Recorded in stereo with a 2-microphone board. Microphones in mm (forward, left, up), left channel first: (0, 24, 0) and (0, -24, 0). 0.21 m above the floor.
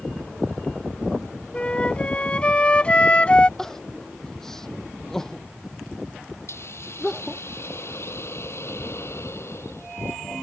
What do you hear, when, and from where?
1.5 s a flute: 25° left (ahead or behind)
3.6 s crying: 10° left (ahead or behind)
6.5 s a hiss: 60° left (ahead or behind)